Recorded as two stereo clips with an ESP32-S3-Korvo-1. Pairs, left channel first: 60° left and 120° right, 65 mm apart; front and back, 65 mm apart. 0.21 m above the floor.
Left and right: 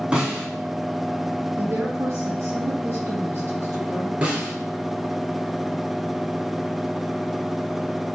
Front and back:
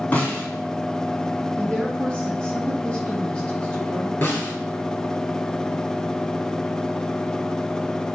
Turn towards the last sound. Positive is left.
turn(degrees=-55)